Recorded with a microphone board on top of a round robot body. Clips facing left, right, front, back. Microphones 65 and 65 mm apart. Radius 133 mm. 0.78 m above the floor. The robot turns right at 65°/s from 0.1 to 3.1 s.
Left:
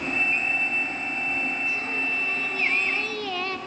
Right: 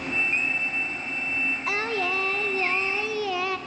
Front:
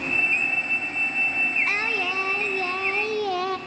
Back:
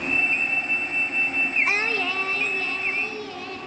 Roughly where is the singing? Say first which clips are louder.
Right 2 dB, back 1 dB; right.